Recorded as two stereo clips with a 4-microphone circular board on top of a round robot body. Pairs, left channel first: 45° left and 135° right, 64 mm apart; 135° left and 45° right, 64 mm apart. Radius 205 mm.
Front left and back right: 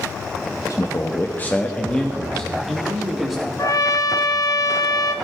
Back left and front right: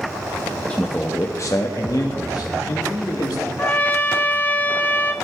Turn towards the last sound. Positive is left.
turn(degrees=70)